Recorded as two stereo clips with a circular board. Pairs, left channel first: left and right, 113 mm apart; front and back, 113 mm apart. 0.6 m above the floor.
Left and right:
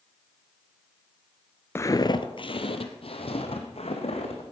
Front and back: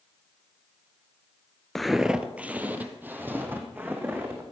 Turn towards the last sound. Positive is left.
turn(degrees=110)